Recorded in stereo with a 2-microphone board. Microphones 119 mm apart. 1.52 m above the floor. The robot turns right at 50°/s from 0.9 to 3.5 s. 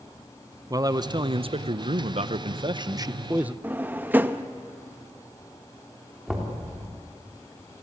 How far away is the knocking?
About 3.5 m.